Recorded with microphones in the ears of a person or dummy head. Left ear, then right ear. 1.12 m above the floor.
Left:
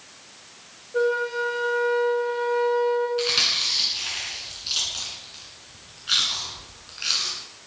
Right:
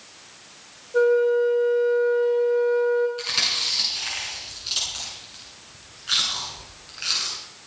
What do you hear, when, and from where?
0.9 s a flute: 15° right (ahead or behind), 4 m
3.2 s chewing: centre (ahead or behind), 6.5 m